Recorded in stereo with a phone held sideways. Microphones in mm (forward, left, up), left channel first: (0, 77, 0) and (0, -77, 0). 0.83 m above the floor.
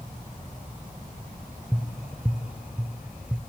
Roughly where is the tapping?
Centre.